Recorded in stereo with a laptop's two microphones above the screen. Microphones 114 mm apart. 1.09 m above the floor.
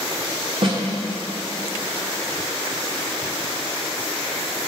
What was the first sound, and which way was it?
A snare drum, 50° right (ahead or behind).